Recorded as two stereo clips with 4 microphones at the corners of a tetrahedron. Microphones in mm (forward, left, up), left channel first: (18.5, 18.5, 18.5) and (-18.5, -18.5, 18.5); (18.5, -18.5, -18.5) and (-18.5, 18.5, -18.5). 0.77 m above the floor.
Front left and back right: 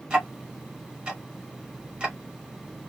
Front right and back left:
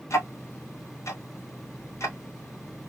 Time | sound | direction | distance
0.1 | ticking | 65° right | 1.6 m